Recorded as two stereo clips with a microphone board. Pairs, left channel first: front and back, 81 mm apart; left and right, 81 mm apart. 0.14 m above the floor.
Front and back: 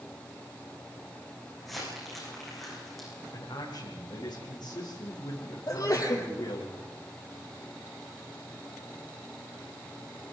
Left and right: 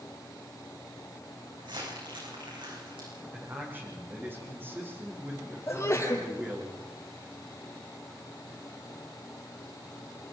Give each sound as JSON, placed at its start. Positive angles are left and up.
{"t": 1.6, "sound": "crumpling", "azimuth_deg": -90, "distance_m": 8.5}
{"t": 3.3, "sound": "a man speaking", "azimuth_deg": -25, "distance_m": 7.5}
{"t": 5.7, "sound": "a sneeze", "azimuth_deg": 40, "distance_m": 4.5}